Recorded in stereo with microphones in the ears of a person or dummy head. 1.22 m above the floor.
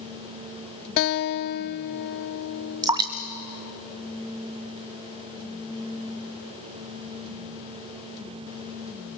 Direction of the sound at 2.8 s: 25° right (ahead or behind).